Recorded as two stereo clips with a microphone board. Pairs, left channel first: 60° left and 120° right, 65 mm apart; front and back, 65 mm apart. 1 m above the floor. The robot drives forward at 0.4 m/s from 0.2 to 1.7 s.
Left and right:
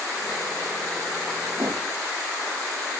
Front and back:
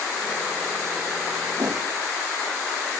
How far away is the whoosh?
About 1.5 m.